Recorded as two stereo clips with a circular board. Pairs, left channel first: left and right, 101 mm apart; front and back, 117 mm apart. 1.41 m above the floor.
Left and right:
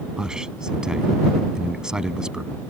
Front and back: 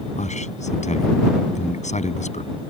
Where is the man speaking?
5° right.